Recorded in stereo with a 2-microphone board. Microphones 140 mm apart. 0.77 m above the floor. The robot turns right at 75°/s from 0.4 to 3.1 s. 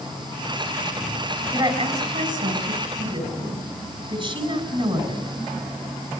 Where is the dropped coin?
I don't hear a dropped coin.